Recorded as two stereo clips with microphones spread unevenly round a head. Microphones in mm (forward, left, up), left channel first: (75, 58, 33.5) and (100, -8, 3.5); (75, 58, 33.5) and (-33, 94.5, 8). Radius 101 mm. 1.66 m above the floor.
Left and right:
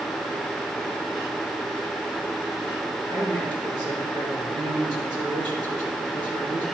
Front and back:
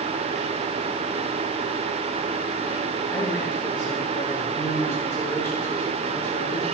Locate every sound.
3.1 s a man speaking: 60° right, 4.5 m